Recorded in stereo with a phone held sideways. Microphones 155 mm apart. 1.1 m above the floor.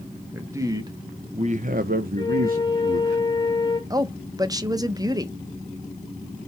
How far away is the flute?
About 0.8 m.